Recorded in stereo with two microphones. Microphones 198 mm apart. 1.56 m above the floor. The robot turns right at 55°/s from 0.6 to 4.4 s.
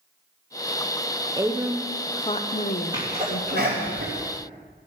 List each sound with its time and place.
1.4 s a woman speaking: 20° right, 0.9 m; by 3.9 s 120° left, 0.9 m
2.9 s a sneeze: 20° right (ahead or behind), 3 m; by 4.2 s 85° right, 3 m